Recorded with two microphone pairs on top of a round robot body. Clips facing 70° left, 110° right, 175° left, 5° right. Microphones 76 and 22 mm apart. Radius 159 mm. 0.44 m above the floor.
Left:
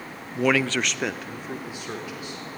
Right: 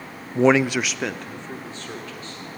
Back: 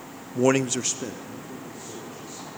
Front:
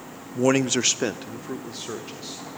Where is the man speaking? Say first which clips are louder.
Right 5 dB, front 1 dB; 125° right, 0.8 m; by 2.4 s 5° right, 3 m.